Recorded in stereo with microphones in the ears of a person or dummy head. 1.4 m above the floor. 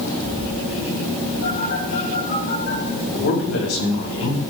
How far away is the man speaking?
About 5 m.